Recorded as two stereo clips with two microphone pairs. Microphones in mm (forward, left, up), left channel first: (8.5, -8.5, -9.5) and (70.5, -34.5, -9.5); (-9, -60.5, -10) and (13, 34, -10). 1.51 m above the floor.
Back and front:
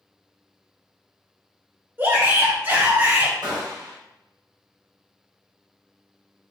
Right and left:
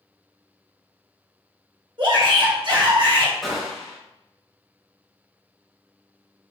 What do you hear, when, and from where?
2.0 s a shout: 40° left, 1.4 m
3.4 s a gunshot: 15° right, 1.0 m